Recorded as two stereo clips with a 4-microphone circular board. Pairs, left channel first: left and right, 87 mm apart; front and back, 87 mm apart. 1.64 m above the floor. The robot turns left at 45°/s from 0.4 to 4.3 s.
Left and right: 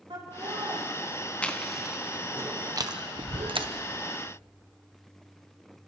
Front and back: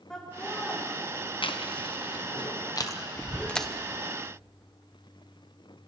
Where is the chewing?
15° left, 1.1 m; by 3.7 s 85° right, 1.1 m.